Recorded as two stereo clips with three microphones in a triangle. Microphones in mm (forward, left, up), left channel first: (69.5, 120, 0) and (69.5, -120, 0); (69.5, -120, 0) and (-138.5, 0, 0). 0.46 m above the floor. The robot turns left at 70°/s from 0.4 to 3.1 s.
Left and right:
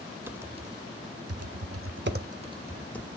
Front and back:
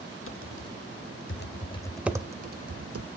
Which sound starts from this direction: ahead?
Typing on a keyboard, at 0.3 s.